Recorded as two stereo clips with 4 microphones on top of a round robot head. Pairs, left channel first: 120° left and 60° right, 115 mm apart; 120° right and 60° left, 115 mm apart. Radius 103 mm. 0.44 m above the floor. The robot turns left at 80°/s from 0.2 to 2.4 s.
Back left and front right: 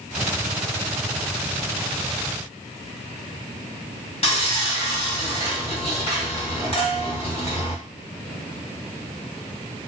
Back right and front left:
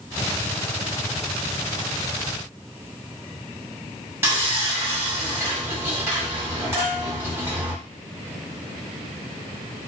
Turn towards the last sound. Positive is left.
turn(degrees=115)